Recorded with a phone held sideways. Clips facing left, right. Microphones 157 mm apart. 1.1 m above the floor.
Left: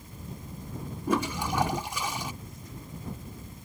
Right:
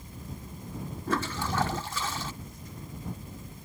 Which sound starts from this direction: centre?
A toilet flushing, at 1.1 s.